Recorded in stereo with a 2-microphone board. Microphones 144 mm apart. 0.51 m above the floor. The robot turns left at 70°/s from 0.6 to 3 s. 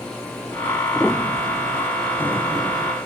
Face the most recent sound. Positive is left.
turn(degrees=40)